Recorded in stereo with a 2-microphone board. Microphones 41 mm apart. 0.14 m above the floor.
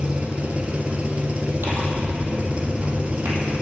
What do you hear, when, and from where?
0.0 s an engine running: 35° right (ahead or behind), 0.8 m
1.6 s tearing paper: 65° right (ahead or behind), 2 m